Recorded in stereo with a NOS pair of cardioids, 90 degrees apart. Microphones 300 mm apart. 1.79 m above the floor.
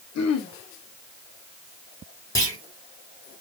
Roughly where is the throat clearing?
Ahead left.